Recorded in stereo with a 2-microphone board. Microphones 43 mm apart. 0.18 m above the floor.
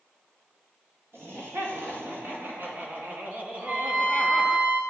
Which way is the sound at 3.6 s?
35° right (ahead or behind).